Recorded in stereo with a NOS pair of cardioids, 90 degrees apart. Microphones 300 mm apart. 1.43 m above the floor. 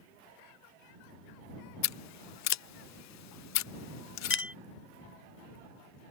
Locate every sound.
1.8 s scissors: 65° left
4.3 s a clink: 45° left